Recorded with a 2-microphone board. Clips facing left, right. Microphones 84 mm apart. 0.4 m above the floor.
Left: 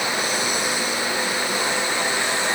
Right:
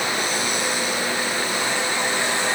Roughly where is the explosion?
No explosion in this recording.